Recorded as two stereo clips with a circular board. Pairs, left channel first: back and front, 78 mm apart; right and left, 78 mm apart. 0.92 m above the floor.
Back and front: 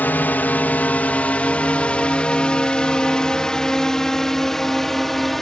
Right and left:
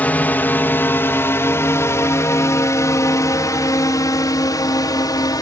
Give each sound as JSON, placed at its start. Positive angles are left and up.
{"t": 0.0, "sound": "a drone", "azimuth_deg": -135}